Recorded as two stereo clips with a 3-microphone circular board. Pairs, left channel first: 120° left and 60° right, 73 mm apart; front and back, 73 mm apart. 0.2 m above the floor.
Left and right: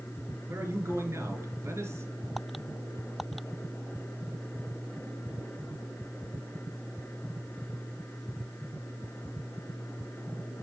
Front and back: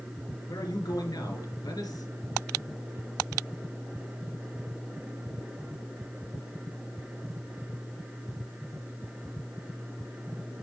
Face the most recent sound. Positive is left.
turn(degrees=-10)